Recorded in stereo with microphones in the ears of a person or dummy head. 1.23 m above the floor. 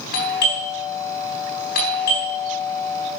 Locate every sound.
0.1 s a doorbell: 50° left (ahead or behind), 4 m